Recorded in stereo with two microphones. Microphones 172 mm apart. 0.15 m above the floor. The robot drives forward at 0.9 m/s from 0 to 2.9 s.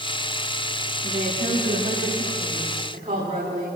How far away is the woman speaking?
About 9.5 m.